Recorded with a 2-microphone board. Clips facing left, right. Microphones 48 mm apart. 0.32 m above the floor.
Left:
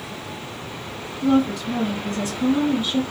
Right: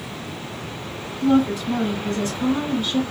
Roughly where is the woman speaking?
Centre.